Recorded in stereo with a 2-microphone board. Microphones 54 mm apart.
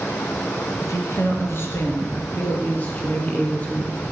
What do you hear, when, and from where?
0.8 s a woman speaking: 60° left (ahead or behind), 3 m; by 4.0 s 25° left (ahead or behind), 5 m